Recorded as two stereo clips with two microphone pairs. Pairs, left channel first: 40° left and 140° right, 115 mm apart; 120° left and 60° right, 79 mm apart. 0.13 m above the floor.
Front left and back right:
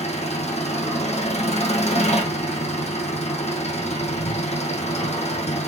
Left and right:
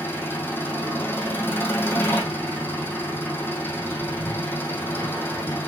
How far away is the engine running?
About 2.5 m.